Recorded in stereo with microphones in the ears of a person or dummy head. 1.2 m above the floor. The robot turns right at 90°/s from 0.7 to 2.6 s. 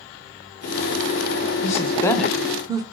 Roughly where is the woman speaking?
Behind left.